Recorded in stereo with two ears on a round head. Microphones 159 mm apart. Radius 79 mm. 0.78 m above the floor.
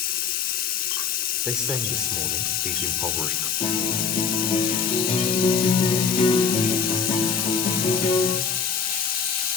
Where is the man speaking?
5° right (ahead or behind), 2.5 m.